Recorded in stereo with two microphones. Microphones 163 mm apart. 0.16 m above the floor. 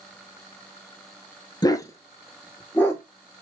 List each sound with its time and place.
1.6 s a dog barking: 25° left (ahead or behind), 0.6 m; by 3.0 s 10° left (ahead or behind), 1.5 m